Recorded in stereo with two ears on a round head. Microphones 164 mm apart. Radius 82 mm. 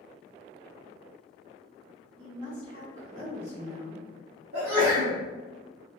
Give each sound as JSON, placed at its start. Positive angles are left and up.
{"t": 2.2, "sound": "a woman speaking", "side_deg": -35, "distance_m": 1.4}
{"t": 4.5, "sound": "a sneeze", "side_deg": -60, "distance_m": 0.8}